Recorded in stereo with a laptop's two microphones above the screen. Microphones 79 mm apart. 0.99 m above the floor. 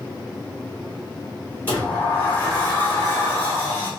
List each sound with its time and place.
1.7 s a sliding door: 20° left (ahead or behind), 1.7 m